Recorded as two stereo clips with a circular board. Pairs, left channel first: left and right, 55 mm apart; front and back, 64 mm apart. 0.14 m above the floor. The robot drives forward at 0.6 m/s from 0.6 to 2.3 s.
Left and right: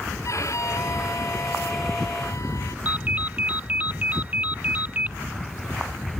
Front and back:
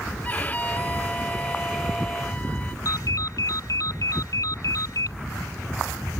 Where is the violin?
65° left; by 2.8 s 70° left.